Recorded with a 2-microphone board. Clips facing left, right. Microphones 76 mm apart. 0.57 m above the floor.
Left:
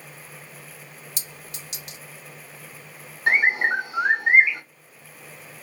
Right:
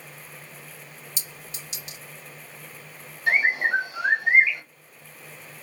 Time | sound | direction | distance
1.2 | a clink | 70° left (ahead or behind) | 1.8 m
3.3 | a bird | 50° left (ahead or behind) | 1.3 m